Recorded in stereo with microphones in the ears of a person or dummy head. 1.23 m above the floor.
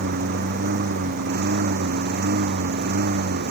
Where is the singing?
I don't hear singing.